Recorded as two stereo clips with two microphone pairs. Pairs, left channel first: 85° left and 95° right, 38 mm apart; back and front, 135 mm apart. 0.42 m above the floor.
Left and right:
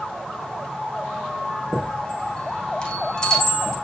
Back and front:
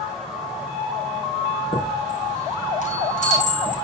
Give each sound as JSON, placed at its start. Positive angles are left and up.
{"t": 1.7, "sound": "a chime", "azimuth_deg": 155, "distance_m": 6.0}